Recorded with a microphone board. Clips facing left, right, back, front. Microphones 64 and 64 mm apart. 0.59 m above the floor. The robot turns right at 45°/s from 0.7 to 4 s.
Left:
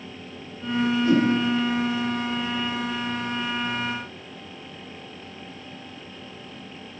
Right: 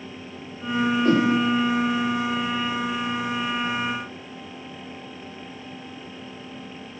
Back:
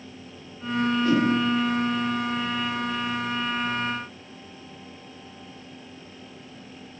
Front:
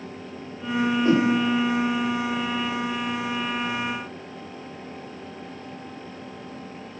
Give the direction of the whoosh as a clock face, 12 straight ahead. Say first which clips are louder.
Even, front 2 dB; 2 o'clock.